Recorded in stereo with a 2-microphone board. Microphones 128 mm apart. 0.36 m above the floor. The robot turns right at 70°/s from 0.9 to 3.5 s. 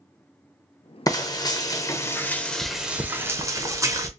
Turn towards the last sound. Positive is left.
turn(degrees=-125)